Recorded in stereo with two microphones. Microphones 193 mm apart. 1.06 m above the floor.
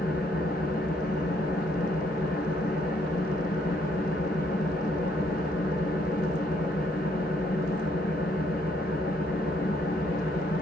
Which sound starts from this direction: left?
An engine running, at 0.0 s.